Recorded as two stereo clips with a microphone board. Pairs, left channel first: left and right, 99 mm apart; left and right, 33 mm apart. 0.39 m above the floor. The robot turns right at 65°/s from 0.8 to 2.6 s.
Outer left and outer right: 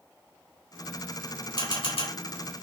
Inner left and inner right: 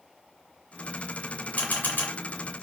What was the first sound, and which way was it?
A camera shutter, 45° left (ahead or behind).